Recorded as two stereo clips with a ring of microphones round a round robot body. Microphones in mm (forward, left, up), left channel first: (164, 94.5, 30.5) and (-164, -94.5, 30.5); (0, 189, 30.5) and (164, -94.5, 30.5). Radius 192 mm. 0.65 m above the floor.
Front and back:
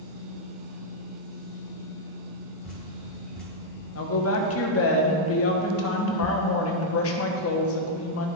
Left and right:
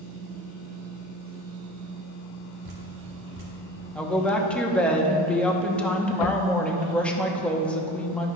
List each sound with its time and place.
2.6 s dripping: 55° right, 2 m
4.0 s a woman speaking: 35° left, 0.9 m